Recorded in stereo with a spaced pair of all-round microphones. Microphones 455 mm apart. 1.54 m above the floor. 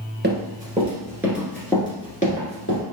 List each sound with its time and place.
0.2 s running footsteps: 25° right (ahead or behind), 1.6 m; by 2.8 s 30° left (ahead or behind), 1.6 m